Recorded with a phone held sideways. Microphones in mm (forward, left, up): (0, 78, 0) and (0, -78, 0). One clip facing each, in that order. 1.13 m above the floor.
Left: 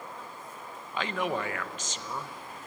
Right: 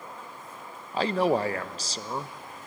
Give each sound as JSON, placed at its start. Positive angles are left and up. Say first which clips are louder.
{"t": 0.9, "sound": "a man speaking", "louder": "right 7 dB", "side_deg": -35, "distance_m": 0.7}